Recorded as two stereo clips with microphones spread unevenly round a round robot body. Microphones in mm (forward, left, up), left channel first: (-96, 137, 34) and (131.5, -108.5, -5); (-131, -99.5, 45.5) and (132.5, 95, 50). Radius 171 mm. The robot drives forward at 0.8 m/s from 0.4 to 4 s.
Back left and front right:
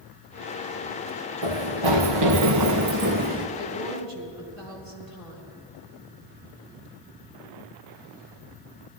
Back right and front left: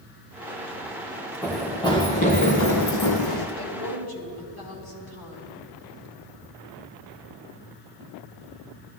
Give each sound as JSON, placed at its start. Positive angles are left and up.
{"t": 1.4, "sound": "running footsteps", "azimuth_deg": -55, "distance_m": 2.5}
{"t": 3.6, "sound": "a woman speaking", "azimuth_deg": -130, "distance_m": 3.0}